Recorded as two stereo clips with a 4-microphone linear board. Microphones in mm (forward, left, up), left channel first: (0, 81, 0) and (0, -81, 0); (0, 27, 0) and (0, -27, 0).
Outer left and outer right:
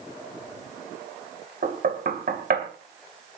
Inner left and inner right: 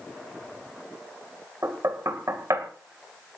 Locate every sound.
1.6 s knocking: 70° right (ahead or behind), 2.5 m